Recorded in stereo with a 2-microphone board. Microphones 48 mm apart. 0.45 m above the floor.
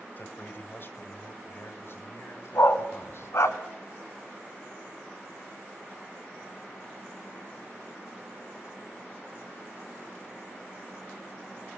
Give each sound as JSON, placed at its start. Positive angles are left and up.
{"t": 0.2, "sound": "a man speaking", "side_deg": 40, "distance_m": 2.5}
{"t": 2.5, "sound": "a dog barking", "side_deg": 75, "distance_m": 1.5}